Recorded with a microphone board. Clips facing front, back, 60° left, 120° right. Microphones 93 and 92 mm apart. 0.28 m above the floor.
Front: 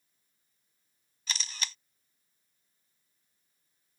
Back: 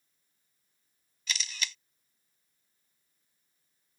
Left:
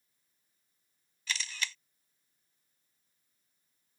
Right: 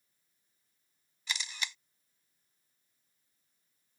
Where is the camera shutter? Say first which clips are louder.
Back 1 dB, left 1 dB; 50° right.